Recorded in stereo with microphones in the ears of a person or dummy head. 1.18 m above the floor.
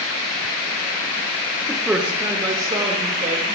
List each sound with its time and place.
1.7 s a man speaking: centre (ahead or behind), 1.2 m; by 3.6 s 35° right (ahead or behind), 2.5 m